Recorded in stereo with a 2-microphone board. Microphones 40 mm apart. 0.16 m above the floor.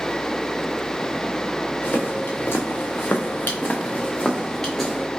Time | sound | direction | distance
1.8 | footsteps | 60° left (ahead or behind) | 1.1 m